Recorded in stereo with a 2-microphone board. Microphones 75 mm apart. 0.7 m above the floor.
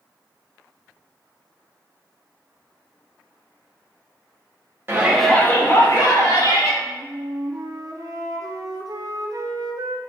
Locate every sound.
4.9 s a shout: 30° right (ahead or behind), 0.8 m; by 6.7 s 50° left (ahead or behind), 2.5 m
6.8 s a flute: 50° right (ahead or behind), 0.6 m